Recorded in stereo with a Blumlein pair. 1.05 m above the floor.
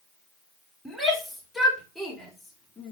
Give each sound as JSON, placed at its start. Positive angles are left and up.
{"t": 0.8, "sound": "a shout", "azimuth_deg": -5, "distance_m": 4.0}